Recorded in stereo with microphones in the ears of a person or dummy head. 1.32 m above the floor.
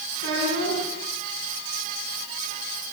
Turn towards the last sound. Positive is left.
turn(degrees=-80)